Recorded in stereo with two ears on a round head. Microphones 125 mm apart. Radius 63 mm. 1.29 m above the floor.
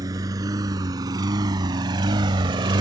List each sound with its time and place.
0.0 s a lawn mower: 25° right (ahead or behind); by 2.8 s 30° right (ahead or behind)